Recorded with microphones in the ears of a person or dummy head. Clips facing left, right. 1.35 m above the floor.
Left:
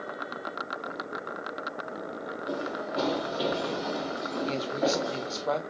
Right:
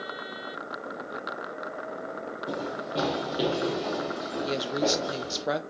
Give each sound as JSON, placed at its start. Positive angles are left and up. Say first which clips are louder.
{"t": 2.5, "sound": "running footsteps", "louder": "even", "side_deg": -50, "distance_m": 2.0}
{"t": 4.4, "sound": "a woman speaking", "louder": "right 1 dB", "side_deg": -15, "distance_m": 0.7}